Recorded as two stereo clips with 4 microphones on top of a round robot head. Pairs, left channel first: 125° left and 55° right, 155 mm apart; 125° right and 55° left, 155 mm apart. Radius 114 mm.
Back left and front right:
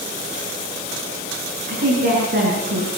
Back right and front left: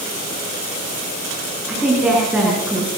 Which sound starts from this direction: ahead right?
A woman speaking, at 1.7 s.